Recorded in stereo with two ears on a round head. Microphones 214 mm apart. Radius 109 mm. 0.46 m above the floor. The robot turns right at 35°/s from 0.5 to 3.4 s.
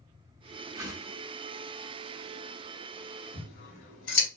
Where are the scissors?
40° left (ahead or behind), 1.6 m.